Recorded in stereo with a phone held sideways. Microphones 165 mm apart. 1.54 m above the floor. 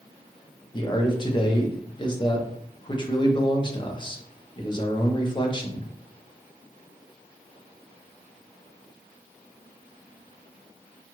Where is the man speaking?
30° left (ahead or behind), 0.6 m.